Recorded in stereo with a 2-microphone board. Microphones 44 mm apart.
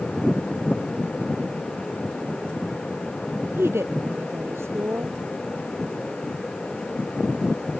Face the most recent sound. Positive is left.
turn(degrees=-80)